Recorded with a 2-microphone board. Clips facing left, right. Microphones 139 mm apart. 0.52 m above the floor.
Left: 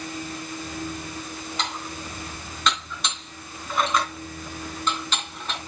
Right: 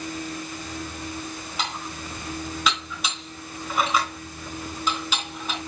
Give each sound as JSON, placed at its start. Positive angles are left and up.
{"t": 1.6, "sound": "dishes clattering", "side_deg": -5, "distance_m": 3.0}